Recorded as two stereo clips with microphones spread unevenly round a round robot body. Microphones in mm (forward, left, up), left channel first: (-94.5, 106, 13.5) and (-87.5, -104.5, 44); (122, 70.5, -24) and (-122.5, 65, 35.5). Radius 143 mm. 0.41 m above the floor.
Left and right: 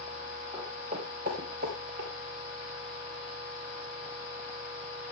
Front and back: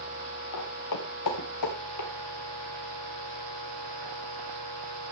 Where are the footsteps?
10° right, 3.5 m; by 2.1 s 40° right, 4 m.